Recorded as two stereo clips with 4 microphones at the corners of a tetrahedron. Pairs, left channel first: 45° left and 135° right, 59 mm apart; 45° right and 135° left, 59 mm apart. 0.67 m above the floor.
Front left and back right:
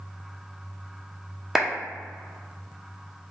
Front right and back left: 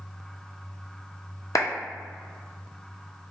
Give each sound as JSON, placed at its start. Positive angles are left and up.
{"t": 1.6, "sound": "a clap", "azimuth_deg": -50, "distance_m": 0.8}